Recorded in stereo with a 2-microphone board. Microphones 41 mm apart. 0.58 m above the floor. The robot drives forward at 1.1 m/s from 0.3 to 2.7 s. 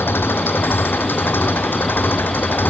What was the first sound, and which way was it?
An engine running, 70° left (ahead or behind).